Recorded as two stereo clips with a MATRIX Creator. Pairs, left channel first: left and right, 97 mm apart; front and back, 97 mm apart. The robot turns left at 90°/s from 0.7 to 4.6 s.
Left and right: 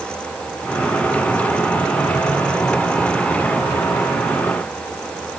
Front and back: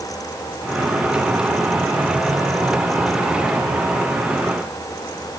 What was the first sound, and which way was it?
Only background noise.